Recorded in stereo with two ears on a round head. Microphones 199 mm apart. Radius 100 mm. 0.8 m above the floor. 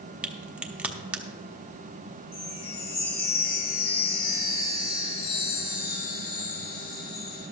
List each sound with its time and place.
0.2 s a crack: 5° right (ahead or behind), 0.7 m
2.3 s a chime: 40° left (ahead or behind), 2 m